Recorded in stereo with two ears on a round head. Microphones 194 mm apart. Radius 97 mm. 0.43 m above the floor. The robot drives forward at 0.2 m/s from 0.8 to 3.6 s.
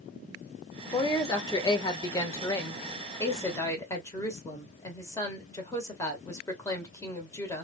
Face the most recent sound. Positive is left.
turn(degrees=15)  # may be behind; listen again after turning